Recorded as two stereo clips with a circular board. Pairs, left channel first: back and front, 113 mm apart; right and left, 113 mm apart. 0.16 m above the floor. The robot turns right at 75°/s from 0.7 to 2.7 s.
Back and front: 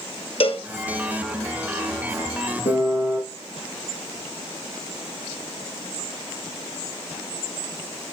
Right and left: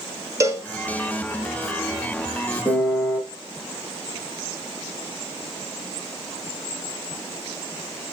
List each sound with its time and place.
0.4 s a cowbell: 150° left, 1.2 m
2.6 s a piano: 175° left, 3 m; by 3.2 s straight behind, 3 m